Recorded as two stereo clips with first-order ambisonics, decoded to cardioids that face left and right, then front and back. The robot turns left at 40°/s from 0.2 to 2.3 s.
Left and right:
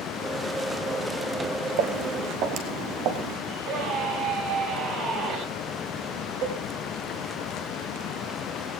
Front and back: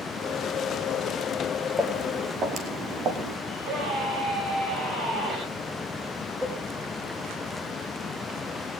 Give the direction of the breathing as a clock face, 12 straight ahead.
No breathing in this recording.